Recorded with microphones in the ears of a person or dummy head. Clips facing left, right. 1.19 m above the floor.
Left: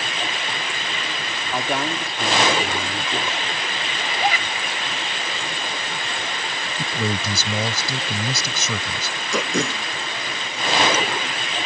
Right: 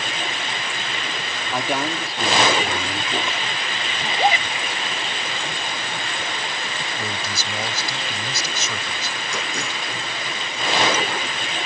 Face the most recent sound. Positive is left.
turn(degrees=65)  # may be behind; listen again after turning